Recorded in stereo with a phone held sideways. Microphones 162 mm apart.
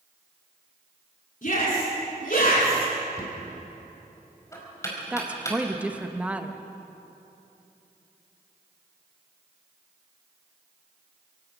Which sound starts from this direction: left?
A shout, at 1.4 s.